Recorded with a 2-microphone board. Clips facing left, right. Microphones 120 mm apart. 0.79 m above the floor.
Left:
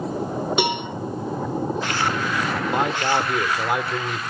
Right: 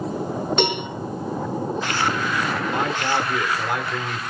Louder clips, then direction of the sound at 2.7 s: Left 3 dB; 20° left (ahead or behind).